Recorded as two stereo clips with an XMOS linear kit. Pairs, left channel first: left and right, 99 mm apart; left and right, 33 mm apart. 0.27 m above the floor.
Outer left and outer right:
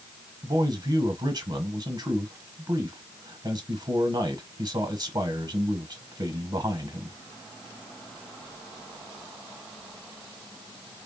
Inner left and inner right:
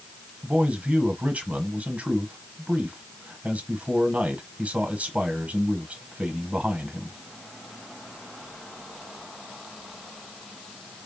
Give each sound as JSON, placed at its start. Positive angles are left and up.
{"t": 0.4, "sound": "a man speaking", "side_deg": -45, "distance_m": 1.2}